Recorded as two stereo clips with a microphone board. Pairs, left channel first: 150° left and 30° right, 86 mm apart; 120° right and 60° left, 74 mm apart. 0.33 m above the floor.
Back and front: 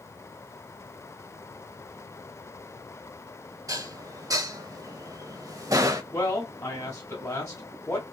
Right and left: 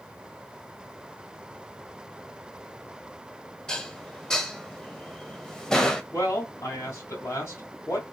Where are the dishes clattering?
45° right, 0.7 m.